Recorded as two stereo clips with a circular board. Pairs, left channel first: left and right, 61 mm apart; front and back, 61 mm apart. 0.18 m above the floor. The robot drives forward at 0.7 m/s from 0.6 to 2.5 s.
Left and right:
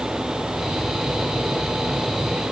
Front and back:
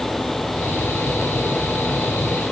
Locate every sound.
Only background noise.